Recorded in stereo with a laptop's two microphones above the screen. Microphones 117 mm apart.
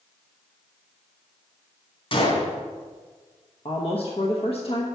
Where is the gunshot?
50° left (ahead or behind), 2.5 m.